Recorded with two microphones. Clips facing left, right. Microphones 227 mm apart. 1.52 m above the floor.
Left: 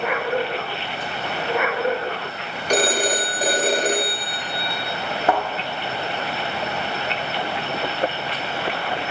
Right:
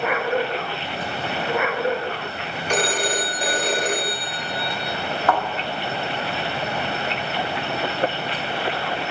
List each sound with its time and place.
2.7 s a phone ringing: 40° left (ahead or behind), 1.4 m
5.3 s a thud: 25° left (ahead or behind), 1.3 m